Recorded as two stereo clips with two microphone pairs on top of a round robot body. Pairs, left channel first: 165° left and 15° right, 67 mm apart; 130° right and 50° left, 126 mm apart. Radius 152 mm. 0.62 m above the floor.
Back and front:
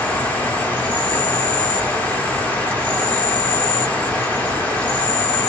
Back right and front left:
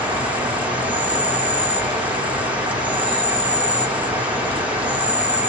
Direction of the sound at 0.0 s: 115° left.